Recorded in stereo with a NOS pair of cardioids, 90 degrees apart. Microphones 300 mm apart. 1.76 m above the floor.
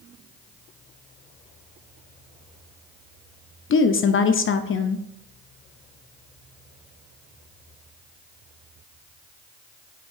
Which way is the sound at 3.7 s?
40° left.